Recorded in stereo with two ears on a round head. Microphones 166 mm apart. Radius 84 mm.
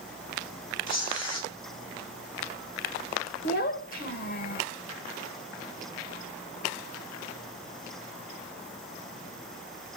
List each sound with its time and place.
0.9 s tearing paper: 25° left (ahead or behind), 3 m
3.4 s a child speaking: 50° left (ahead or behind), 1.3 m